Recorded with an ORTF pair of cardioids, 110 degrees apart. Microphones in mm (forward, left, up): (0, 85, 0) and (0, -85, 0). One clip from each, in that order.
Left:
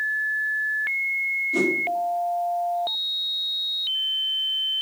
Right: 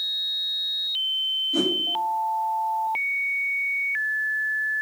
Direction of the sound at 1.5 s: 10° left.